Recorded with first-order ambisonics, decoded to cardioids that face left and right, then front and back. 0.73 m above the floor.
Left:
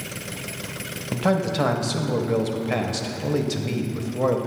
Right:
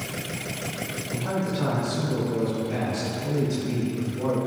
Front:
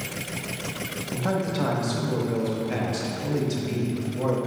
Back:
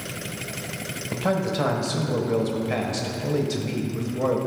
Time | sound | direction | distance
1.1 | a man speaking | 105° left | 0.8 m